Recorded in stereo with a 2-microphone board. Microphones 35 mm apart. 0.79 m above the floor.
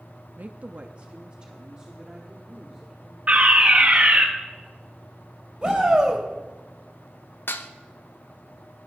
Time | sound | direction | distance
0.4 | a woman speaking | 50° right (ahead or behind) | 0.6 m
3.3 | a fire alarm | 40° right (ahead or behind) | 1.7 m
5.6 | a shout | 20° right (ahead or behind) | 3.5 m
7.5 | dishes clattering | 80° left | 0.7 m